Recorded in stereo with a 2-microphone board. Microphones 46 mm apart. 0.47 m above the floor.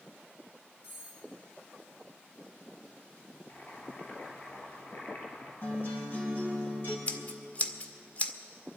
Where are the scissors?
30° left (ahead or behind), 0.8 m.